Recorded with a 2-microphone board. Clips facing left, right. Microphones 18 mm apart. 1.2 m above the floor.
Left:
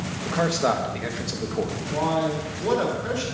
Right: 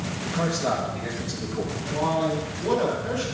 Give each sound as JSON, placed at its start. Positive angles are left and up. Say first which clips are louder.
{"t": 0.2, "sound": "a man speaking", "louder": "left 3 dB", "side_deg": 70, "distance_m": 1.3}
{"t": 1.9, "sound": "a man speaking", "louder": "even", "side_deg": 45, "distance_m": 3.0}